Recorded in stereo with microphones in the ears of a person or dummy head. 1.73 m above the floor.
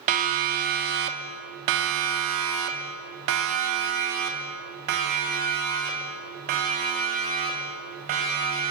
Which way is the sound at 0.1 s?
45° right (ahead or behind).